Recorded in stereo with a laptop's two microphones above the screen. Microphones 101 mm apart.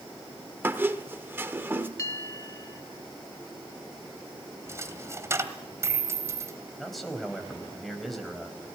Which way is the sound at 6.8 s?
Centre (ahead or behind).